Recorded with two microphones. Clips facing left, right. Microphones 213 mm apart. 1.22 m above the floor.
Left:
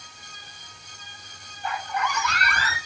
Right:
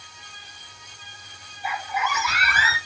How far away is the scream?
About 1.9 m.